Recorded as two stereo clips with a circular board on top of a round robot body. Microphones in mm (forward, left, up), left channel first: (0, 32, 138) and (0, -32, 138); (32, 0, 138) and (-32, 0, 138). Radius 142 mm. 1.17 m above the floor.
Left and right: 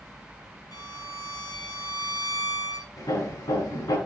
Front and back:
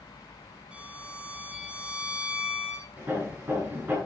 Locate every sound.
0.7 s a violin: 105° left, 2.5 m
3.0 s hammering: 115° left, 9.5 m